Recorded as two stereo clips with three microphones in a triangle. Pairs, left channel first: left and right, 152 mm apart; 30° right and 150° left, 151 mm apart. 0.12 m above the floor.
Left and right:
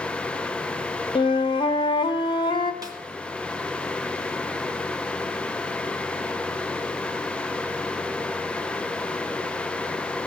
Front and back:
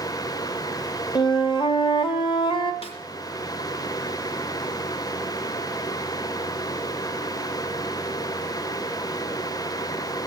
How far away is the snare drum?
About 2.0 m.